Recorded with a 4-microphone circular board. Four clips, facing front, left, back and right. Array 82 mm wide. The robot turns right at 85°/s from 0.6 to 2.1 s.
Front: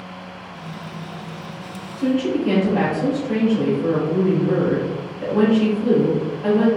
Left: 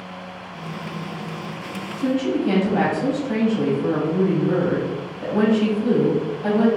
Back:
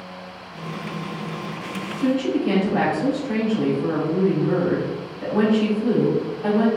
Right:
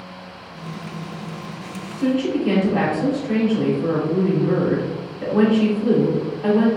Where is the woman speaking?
100° right, 1.7 m; by 6.7 s 90° right, 1.7 m.